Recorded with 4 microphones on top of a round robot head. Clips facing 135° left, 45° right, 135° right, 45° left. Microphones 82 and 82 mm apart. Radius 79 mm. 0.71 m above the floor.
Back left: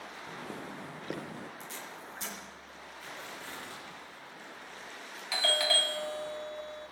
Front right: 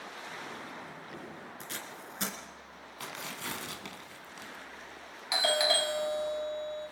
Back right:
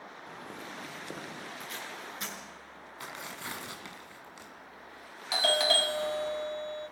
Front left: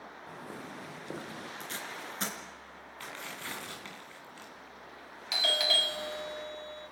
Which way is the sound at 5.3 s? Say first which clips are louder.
Front right 2 dB, back right 5 dB; 110° right.